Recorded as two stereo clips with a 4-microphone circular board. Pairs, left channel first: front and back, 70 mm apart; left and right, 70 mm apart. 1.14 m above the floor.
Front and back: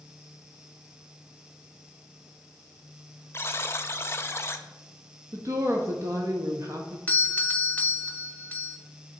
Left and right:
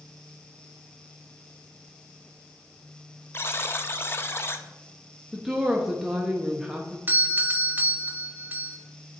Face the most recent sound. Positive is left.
turn(degrees=-50)